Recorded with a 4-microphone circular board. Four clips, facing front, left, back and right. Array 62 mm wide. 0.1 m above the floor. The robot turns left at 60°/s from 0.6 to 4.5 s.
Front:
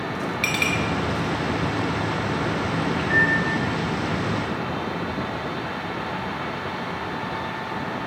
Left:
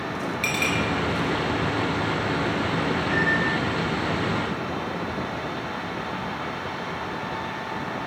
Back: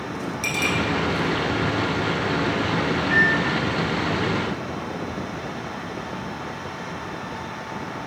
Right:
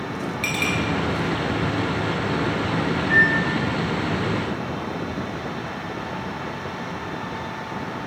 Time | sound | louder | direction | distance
0.4 | a clink | right 1 dB, front 1 dB | straight ahead | 0.9 m
3.0 | a microwave | right 7 dB, back 1 dB | 35° right | 1.8 m